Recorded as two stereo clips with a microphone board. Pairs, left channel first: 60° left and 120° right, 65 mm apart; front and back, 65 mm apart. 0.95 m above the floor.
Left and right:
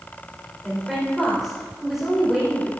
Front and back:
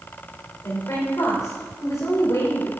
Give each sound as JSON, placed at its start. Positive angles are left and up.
{"t": 0.6, "sound": "a woman speaking", "azimuth_deg": -35, "distance_m": 4.0}